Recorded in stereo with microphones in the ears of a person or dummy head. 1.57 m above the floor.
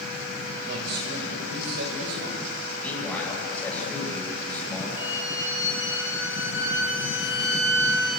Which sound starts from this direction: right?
A man speaking, at 0.7 s.